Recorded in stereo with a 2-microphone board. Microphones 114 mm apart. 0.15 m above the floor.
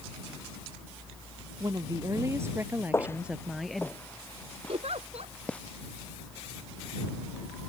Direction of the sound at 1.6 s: 35° right (ahead or behind).